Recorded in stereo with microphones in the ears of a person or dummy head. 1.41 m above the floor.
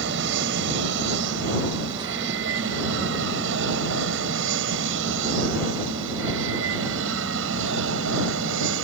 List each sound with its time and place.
0.0 s an aircraft: 70° right (ahead or behind); by 8.8 s 75° right (ahead or behind)